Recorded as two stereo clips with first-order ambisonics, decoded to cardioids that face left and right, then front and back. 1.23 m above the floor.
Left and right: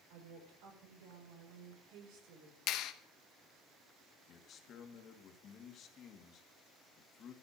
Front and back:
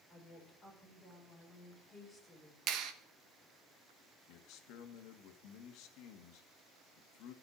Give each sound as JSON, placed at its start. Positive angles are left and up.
{"t": 0.1, "sound": "a woman speaking", "azimuth_deg": -90, "distance_m": 5.5}
{"t": 2.7, "sound": "a clap", "azimuth_deg": 135, "distance_m": 1.1}
{"t": 4.3, "sound": "a man speaking", "azimuth_deg": 35, "distance_m": 1.9}